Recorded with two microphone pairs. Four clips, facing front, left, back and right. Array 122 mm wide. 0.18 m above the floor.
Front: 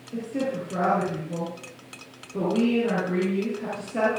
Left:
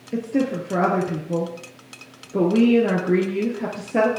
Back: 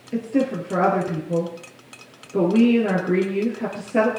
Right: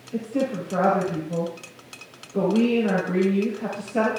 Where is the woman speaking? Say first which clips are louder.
Left 3 dB, back 6 dB; 130° left, 3 m.